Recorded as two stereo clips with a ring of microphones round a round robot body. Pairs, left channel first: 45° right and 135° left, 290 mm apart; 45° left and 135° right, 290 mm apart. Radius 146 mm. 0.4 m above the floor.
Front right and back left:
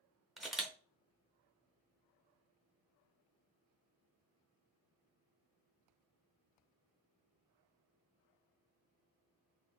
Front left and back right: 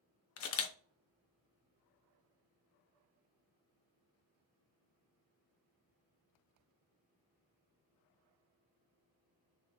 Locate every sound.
0.4 s a camera shutter: 45° left, 0.5 m